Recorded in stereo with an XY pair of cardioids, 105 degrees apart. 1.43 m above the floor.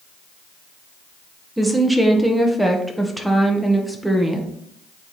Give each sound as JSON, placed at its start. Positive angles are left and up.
{"t": 1.6, "sound": "a woman speaking", "azimuth_deg": -5, "distance_m": 1.5}